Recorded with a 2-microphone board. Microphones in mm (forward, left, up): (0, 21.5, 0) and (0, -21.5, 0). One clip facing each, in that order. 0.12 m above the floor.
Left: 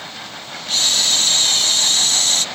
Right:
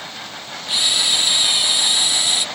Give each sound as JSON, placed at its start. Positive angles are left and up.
{"t": 0.7, "sound": "a camera shutter", "side_deg": -15}